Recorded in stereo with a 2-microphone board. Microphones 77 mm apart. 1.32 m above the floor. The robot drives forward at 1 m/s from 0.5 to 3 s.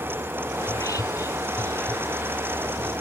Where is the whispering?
40° left (ahead or behind), 0.8 m; by 2.9 s 15° left (ahead or behind), 2.0 m.